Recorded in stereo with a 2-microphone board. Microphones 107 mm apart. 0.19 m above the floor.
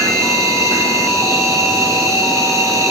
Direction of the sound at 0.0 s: 25° right (ahead or behind).